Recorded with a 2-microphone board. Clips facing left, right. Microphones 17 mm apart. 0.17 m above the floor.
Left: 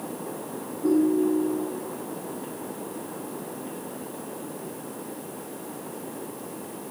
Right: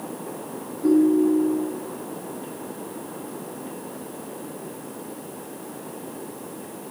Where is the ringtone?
40° right (ahead or behind), 2 m.